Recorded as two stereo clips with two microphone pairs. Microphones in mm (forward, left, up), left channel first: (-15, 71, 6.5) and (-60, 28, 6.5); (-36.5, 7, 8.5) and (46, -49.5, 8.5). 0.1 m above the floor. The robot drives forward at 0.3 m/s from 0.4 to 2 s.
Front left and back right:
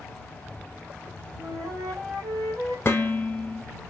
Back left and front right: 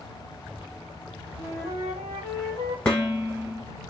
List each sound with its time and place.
0.0 s an insect: 55° left, 0.9 m; by 3.9 s 110° left, 0.9 m
1.4 s a flute: 160° right, 1.1 m
2.9 s dishes clattering: 75° left, 0.9 m